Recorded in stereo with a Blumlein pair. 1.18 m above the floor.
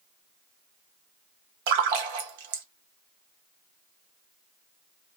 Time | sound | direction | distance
1.7 | a splash | 50° right | 0.5 m